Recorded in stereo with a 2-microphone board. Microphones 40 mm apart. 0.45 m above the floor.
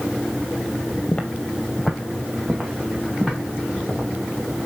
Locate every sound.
1.1 s footsteps: 35° left (ahead or behind), 0.8 m; by 4.1 s 5° left (ahead or behind), 3 m